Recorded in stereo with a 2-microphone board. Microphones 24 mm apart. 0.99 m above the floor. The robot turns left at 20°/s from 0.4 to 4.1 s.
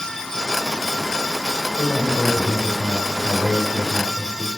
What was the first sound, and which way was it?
A man speaking, 155° left.